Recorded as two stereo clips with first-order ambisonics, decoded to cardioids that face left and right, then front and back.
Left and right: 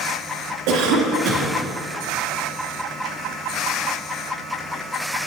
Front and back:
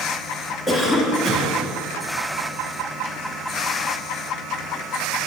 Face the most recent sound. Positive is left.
turn(degrees=-70)